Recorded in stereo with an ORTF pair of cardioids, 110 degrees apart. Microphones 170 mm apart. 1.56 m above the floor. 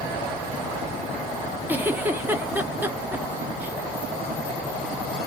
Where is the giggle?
10° right, 1.3 m.